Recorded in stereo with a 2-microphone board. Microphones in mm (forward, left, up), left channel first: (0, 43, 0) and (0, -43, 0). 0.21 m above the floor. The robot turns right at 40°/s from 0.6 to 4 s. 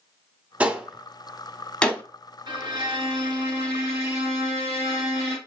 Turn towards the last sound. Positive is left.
turn(degrees=-35)